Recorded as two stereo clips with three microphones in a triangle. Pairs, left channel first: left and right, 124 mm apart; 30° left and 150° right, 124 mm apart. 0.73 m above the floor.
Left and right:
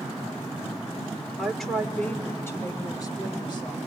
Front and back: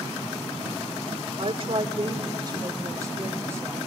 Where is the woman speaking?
175° right, 2.0 m; by 3.8 s 140° left, 3 m.